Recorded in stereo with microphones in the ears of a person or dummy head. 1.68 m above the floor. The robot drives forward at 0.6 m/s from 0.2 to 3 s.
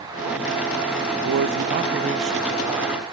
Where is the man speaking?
70° right (ahead or behind); by 3.0 s 25° right (ahead or behind).